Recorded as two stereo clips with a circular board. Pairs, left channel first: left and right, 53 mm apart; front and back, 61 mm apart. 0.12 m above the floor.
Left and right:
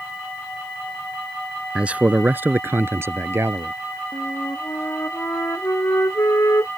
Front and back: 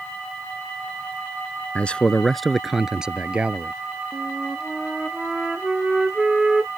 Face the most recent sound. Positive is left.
turn(degrees=95)